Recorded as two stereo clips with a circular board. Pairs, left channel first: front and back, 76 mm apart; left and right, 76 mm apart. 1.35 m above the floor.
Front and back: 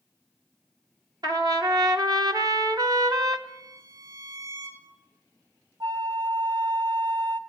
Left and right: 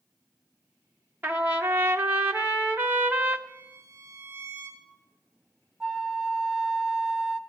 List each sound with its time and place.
1.2 s a trumpet: 150° right, 0.9 m
3.5 s a violin: 145° right, 4 m
5.8 s a flute: 170° right, 0.6 m